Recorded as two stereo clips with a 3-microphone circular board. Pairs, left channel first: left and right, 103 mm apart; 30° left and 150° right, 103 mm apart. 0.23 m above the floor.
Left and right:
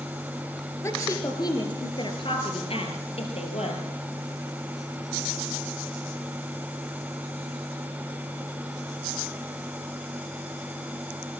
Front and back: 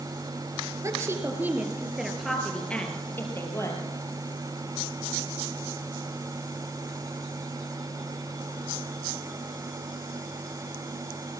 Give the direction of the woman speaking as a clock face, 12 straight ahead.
7 o'clock.